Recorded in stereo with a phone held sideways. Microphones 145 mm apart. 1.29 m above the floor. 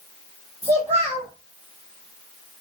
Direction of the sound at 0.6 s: 45° right (ahead or behind).